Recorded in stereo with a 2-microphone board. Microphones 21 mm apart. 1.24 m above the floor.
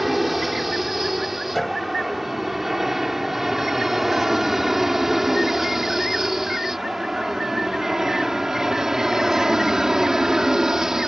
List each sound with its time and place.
0.0 s an aircraft: centre (ahead or behind); by 11.1 s 20° right (ahead or behind)
1.6 s a piano: 15° left (ahead or behind)